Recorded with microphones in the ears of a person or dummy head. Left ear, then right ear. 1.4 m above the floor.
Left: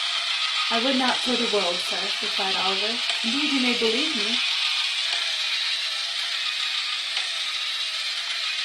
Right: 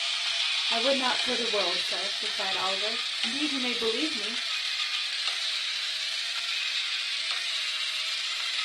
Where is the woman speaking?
85° left, 3 m.